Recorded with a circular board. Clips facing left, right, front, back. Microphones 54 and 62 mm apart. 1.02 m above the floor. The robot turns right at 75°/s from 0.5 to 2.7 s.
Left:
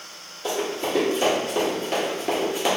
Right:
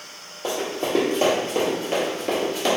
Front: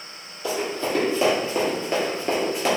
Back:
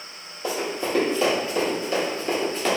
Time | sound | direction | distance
0.4 | running footsteps | 125° right | 1.7 m